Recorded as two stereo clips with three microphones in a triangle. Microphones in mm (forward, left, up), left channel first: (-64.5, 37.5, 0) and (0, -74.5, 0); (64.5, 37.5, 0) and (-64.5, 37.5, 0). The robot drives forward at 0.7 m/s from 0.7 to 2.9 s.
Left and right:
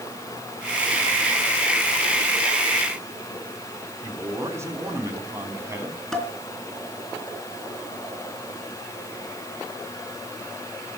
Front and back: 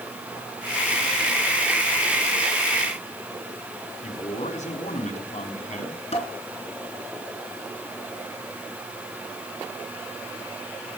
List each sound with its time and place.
4.0 s a man speaking: 5° left, 4 m
6.1 s dishes clattering: 30° left, 3.5 m